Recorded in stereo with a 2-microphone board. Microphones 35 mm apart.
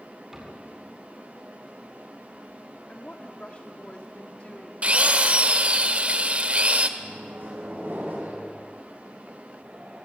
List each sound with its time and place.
0.3 s a cupboard door: 10° right (ahead or behind), 8.5 m
2.9 s a woman speaking: 30° left (ahead or behind), 2.5 m
4.8 s a drill: 35° right (ahead or behind), 1.5 m
7.0 s a microwave: 70° right (ahead or behind), 7.5 m